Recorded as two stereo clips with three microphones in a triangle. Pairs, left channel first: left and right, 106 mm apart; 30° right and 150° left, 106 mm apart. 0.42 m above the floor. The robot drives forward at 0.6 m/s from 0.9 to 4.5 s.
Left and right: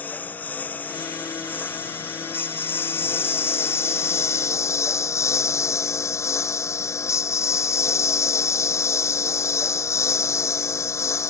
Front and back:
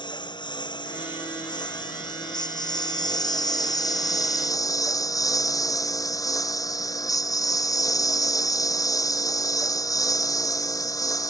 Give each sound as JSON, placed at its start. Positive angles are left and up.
{"t": 0.0, "sound": "a lawn mower", "azimuth_deg": 15}